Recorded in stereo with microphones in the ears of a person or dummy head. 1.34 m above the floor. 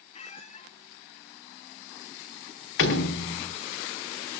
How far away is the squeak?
About 1.5 m.